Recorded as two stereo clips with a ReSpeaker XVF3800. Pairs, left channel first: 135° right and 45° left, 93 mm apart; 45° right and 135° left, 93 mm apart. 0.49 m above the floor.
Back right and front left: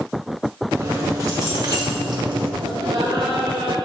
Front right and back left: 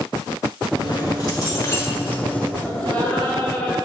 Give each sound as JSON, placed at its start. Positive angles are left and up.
{"t": 0.8, "sound": "keys jangling", "azimuth_deg": -5, "distance_m": 1.8}
{"t": 2.6, "sound": "laughter", "azimuth_deg": 25, "distance_m": 2.5}